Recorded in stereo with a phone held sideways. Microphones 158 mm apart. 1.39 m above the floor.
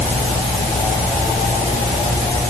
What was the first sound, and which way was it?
Only background noise.